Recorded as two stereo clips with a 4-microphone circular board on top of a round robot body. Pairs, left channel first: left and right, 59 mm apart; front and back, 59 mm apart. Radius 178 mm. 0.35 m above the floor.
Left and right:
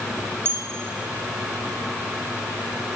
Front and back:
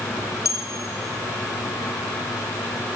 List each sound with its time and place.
0.5 s a bell: 40° right, 1.4 m